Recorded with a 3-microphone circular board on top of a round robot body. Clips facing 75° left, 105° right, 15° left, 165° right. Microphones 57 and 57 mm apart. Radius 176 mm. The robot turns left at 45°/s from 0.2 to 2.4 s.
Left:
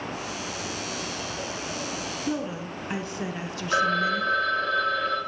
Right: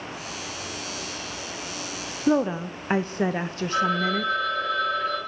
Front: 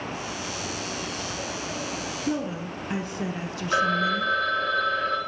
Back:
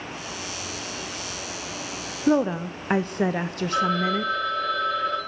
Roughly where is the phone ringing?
Ahead left.